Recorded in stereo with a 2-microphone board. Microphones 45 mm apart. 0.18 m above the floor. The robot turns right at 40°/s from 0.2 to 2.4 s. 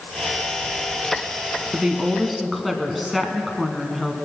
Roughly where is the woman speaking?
Centre.